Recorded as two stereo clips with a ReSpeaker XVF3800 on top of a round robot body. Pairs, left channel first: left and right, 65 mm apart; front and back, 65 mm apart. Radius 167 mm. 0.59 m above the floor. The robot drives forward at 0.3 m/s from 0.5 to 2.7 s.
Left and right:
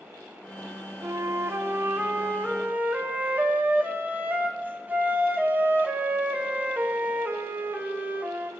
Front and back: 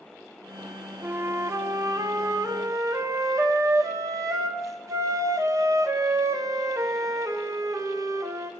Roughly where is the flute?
Behind right.